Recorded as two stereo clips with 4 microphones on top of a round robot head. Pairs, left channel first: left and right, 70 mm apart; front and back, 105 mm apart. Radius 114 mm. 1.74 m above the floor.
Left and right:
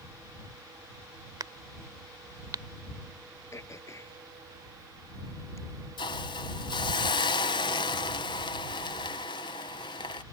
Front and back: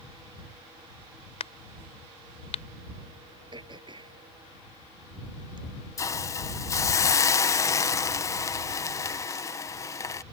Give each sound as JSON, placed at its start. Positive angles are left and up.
{"t": 1.4, "sound": "a crack", "azimuth_deg": -40}
{"t": 3.5, "sound": "throat clearing", "azimuth_deg": 135}
{"t": 6.0, "sound": "a hiss", "azimuth_deg": 55}